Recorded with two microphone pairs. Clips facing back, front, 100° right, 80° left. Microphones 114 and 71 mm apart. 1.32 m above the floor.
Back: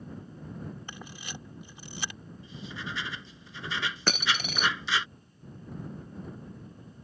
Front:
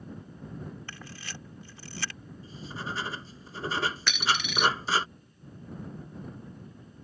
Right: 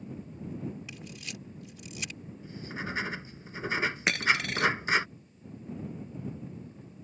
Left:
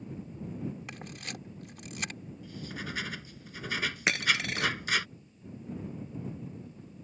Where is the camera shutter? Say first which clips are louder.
Back 1 dB, left 1 dB; 110° left.